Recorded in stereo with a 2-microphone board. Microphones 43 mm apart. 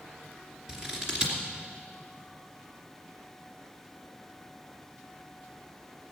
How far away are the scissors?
About 2.5 m.